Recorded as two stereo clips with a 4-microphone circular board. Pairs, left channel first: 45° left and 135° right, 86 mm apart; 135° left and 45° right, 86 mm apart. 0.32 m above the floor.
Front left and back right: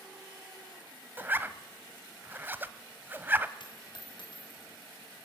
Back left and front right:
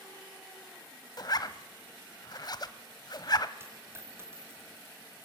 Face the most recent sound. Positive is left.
turn(degrees=20)